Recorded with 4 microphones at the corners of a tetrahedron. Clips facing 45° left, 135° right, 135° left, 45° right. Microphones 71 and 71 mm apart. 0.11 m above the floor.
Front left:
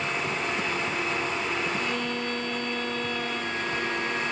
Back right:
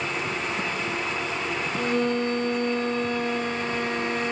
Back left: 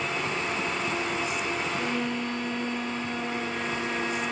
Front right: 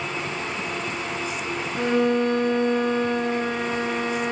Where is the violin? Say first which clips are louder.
Back right 5 dB, front right 8 dB; 80° right, 1.2 m.